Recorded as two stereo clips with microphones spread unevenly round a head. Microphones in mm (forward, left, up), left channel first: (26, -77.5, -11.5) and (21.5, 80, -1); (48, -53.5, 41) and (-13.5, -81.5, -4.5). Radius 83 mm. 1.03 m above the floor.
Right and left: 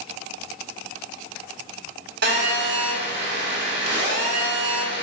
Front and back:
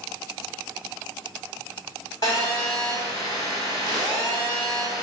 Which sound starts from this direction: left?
A phone buzzing, at 2.2 s.